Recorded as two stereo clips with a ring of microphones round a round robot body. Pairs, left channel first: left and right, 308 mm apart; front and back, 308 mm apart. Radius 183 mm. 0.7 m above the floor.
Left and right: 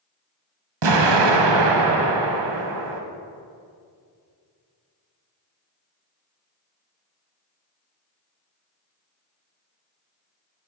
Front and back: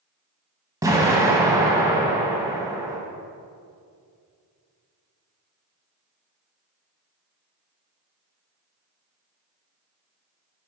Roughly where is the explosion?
Right.